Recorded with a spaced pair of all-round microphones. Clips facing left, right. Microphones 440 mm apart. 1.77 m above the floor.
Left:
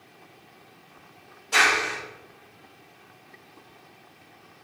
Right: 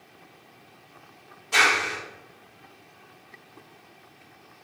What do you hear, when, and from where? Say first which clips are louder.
1.5 s a clap: left 1 dB; 15° right (ahead or behind), 1.9 m